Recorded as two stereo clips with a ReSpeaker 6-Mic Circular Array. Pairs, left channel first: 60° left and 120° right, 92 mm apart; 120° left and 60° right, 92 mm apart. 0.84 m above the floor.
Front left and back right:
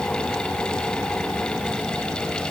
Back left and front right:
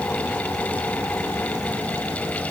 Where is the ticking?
No ticking in this recording.